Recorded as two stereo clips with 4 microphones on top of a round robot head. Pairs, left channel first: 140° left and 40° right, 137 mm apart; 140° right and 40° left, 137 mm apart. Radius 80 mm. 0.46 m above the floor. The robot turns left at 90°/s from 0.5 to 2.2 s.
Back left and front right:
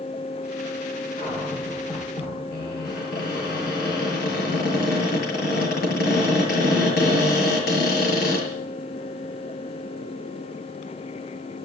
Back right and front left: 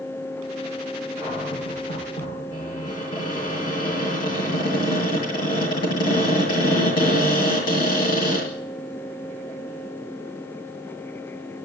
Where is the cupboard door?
105° right, 8 m; by 8.5 s 160° left, 8 m.